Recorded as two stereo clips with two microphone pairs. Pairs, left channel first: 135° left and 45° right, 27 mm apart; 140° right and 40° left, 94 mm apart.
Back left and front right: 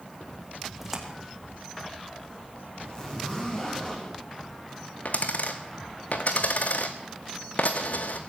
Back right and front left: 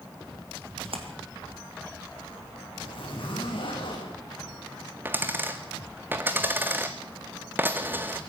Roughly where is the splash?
Ahead left.